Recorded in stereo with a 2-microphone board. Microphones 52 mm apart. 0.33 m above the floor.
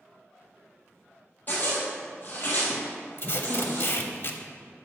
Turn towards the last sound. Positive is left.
turn(degrees=45)  # may be behind; listen again after turning